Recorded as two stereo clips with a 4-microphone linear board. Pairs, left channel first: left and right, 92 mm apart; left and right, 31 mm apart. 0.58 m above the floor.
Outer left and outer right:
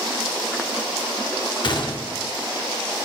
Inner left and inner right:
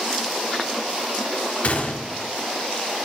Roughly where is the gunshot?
Left.